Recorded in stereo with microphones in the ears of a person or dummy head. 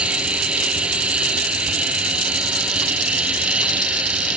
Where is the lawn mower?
10° right (ahead or behind).